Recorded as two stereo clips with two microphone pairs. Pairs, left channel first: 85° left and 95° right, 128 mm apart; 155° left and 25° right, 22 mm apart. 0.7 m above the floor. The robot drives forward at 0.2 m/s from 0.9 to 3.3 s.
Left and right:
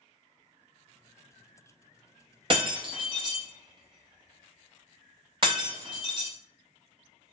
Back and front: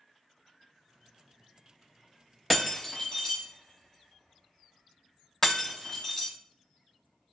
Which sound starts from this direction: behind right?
Breaking glass, at 2.5 s.